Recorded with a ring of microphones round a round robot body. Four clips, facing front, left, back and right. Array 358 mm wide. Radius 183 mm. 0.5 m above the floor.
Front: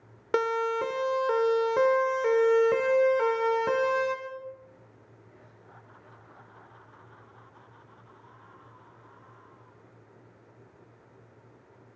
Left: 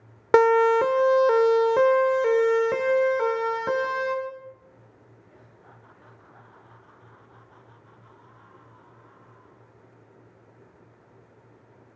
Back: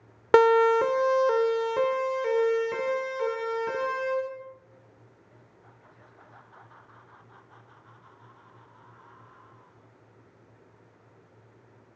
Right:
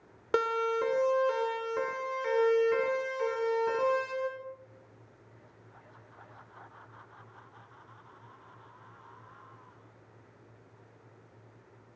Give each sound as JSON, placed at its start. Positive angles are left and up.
{"t": 0.3, "sound": "a siren", "azimuth_deg": 125, "distance_m": 2.5}